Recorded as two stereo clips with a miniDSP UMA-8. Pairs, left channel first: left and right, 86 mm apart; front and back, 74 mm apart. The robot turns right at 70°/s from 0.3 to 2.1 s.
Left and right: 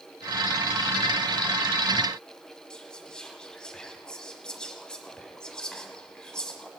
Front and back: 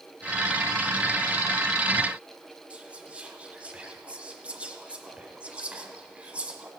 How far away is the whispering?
About 1.5 m.